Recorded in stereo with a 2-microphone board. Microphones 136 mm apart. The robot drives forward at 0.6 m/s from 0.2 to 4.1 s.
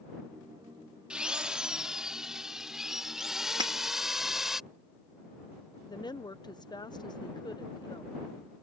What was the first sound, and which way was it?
A drill, 5° right (ahead or behind).